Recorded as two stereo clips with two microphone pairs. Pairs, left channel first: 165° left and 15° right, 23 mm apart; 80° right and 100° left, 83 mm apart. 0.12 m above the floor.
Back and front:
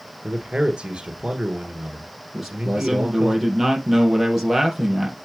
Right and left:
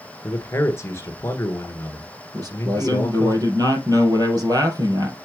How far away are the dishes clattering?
I don't hear dishes clattering.